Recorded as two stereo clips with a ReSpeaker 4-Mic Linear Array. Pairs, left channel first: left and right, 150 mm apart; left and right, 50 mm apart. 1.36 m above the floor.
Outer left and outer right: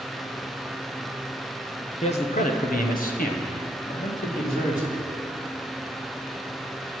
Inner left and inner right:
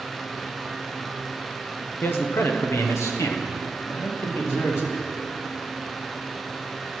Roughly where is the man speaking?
Left.